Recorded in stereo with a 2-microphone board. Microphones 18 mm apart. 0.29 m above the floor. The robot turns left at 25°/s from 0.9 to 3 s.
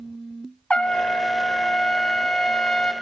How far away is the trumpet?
About 0.6 m.